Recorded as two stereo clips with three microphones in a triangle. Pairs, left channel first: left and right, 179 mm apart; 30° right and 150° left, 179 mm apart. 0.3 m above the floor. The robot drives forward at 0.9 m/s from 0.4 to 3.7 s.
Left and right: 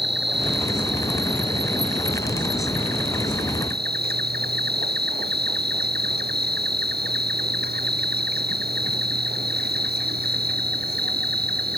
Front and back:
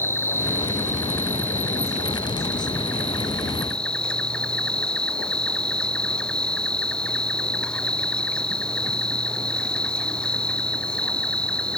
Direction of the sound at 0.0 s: 105° right.